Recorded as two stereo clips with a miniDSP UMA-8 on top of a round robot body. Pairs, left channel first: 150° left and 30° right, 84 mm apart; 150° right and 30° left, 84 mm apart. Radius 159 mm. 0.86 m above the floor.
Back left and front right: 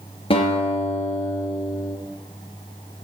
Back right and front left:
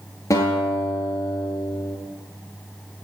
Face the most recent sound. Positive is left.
turn(degrees=160)